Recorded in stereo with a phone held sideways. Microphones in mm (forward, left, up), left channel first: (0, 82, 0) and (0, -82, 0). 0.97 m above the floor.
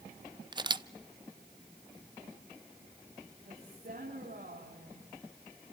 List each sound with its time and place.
0.5 s a camera shutter: 30° right (ahead or behind), 0.5 m
3.4 s a woman speaking: 70° right (ahead or behind), 6.5 m